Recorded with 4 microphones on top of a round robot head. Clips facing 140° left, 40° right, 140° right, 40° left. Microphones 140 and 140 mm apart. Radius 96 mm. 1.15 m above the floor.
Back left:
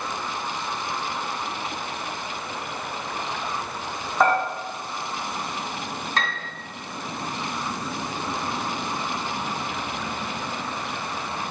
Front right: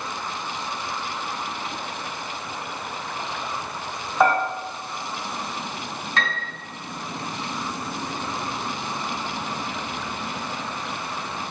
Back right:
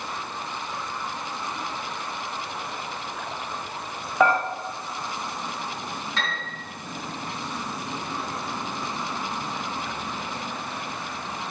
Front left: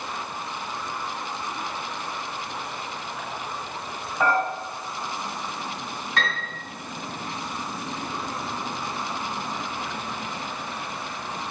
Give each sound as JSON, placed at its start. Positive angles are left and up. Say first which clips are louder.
{"t": 4.2, "sound": "dishes clattering", "louder": "front right 1 dB, back right 3 dB", "azimuth_deg": -130, "distance_m": 1.8}
{"t": 6.2, "sound": "a piano", "louder": "front right 1 dB, front left 5 dB", "azimuth_deg": 85, "distance_m": 3.0}